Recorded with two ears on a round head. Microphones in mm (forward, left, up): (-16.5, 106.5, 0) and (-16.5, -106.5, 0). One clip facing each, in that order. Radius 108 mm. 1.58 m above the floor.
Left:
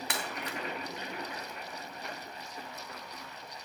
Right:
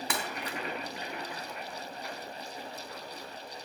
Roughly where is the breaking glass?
Right.